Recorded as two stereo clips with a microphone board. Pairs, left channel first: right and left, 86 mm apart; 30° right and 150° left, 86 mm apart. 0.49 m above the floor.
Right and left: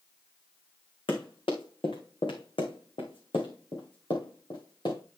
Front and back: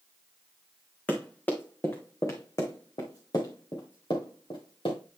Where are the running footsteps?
105° right, 2 m; by 5.0 s 55° right, 2.5 m.